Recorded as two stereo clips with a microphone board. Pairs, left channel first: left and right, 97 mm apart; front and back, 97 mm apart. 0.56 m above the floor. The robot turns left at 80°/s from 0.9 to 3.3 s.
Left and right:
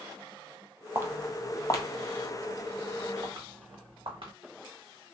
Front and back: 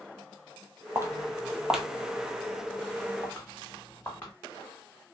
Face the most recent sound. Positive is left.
turn(degrees=-70)